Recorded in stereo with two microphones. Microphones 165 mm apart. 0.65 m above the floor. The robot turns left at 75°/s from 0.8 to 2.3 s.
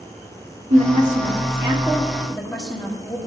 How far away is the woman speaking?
About 1.1 m.